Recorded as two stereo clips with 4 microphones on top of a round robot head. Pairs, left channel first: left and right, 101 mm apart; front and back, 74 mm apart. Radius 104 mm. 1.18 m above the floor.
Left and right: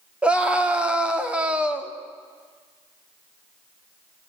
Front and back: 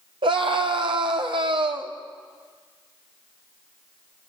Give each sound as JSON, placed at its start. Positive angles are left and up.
{"t": 0.2, "sound": "a scream", "azimuth_deg": -170, "distance_m": 3.0}